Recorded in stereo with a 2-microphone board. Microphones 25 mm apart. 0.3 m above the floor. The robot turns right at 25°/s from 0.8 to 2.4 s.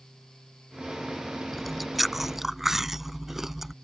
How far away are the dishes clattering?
I don't hear dishes clattering.